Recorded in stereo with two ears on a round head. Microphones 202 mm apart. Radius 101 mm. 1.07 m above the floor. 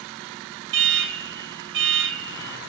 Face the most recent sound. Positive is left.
turn(degrees=-55)  # may be behind; listen again after turning